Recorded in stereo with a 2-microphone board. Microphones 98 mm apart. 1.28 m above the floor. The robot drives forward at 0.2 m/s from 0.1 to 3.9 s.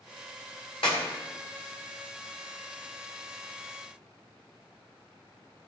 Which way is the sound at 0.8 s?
70° left (ahead or behind).